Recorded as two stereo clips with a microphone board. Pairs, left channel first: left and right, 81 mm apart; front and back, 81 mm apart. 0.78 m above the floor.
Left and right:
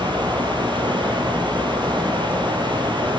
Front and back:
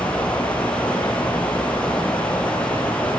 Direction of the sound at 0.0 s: 75° right.